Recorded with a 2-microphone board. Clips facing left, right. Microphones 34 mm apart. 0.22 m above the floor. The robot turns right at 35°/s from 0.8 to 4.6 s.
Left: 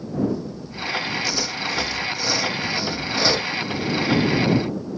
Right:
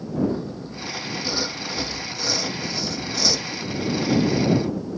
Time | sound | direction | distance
0.3 | sawing | 45° right | ?